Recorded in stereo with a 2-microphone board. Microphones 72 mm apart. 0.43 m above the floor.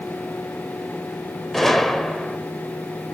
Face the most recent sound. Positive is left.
turn(degrees=5)  # may be behind; listen again after turning